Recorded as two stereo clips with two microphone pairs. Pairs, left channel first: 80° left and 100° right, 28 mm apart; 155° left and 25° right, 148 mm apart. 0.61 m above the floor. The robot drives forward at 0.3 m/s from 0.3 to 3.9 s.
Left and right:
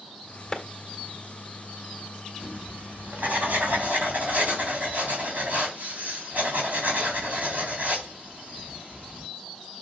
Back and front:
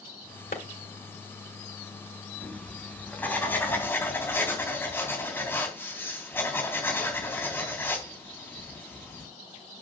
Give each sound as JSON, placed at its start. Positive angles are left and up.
{"t": 0.5, "sound": "a clap", "azimuth_deg": 155, "distance_m": 2.0}
{"t": 2.4, "sound": "writing", "azimuth_deg": -125, "distance_m": 3.0}